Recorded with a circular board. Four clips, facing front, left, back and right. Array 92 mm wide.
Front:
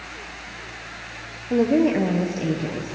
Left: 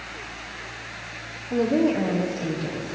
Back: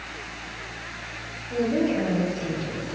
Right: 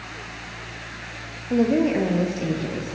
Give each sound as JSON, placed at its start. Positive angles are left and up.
{"t": 1.5, "sound": "a woman speaking", "azimuth_deg": -35, "distance_m": 2.5}